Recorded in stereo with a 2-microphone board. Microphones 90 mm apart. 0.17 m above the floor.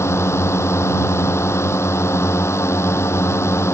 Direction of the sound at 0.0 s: 30° left (ahead or behind).